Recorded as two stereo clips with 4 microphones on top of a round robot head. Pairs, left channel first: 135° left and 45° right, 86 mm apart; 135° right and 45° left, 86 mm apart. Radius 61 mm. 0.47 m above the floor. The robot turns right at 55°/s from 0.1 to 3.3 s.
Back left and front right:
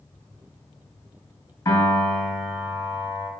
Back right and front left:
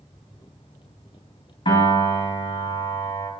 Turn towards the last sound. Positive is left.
turn(degrees=-85)